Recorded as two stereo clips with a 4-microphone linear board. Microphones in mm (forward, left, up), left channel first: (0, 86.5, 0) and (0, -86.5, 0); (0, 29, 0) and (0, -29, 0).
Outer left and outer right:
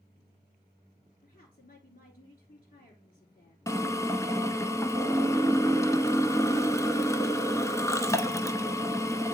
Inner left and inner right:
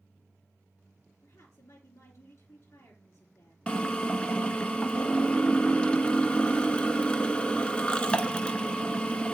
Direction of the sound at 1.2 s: 55° left (ahead or behind).